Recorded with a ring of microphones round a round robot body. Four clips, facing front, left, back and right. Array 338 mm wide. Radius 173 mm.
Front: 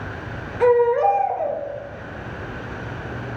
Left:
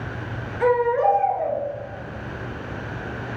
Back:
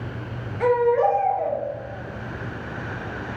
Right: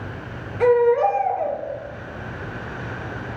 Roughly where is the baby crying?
Ahead right.